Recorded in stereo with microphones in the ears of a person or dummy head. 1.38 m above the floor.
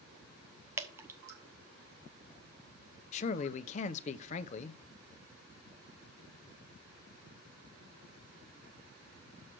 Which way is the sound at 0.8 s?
15° right (ahead or behind).